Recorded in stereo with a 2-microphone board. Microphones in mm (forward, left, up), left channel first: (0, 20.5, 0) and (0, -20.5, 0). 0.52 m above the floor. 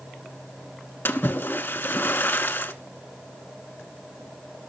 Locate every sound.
1.1 s a splash: 60° left (ahead or behind), 1.0 m